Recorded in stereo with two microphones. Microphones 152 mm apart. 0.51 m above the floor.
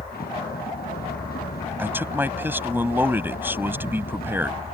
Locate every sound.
0.0 s a vehicle: 90° left
1.8 s a man speaking: 15° right (ahead or behind)